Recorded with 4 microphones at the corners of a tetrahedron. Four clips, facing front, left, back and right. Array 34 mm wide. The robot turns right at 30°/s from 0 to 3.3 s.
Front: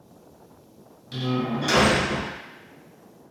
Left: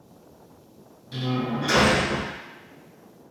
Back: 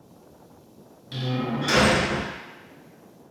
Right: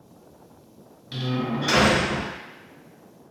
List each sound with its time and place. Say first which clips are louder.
1.1 s a door slam: even, front 2 dB; 105° right, 1.3 m; by 2.3 s 70° right, 1.3 m